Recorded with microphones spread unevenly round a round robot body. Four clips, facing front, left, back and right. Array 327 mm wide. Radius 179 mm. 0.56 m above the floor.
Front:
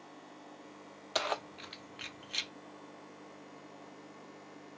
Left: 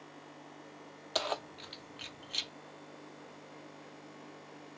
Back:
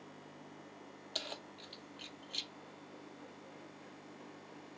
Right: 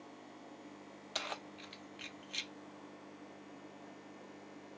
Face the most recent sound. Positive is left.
turn(degrees=50)